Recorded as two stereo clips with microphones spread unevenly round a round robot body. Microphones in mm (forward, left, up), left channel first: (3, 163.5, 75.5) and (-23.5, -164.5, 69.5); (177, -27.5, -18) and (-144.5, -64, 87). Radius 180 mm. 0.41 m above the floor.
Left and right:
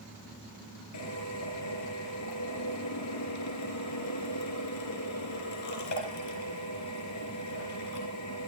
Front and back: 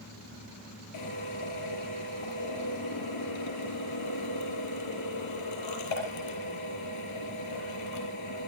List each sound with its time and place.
0.9 s a drill: 45° left, 6 m